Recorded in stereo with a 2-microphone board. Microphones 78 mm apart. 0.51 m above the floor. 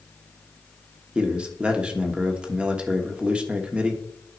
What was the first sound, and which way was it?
A man speaking, 15° right (ahead or behind).